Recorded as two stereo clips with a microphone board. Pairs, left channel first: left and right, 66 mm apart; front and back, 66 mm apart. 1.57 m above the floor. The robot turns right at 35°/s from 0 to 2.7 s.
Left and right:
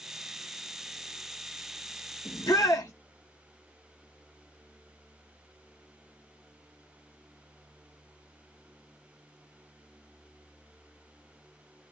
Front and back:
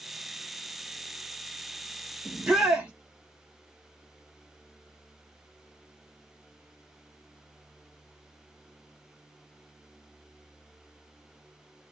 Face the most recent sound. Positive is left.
turn(degrees=110)